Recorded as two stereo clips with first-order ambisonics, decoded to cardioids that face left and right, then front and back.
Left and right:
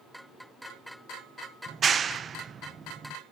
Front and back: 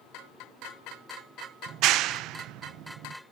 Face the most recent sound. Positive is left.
turn(degrees=-155)